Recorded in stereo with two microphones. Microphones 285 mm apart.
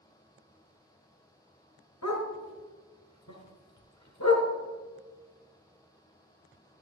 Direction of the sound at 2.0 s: 85° left.